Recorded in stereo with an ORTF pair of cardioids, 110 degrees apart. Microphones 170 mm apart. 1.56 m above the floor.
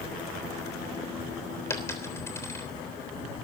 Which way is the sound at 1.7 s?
15° left.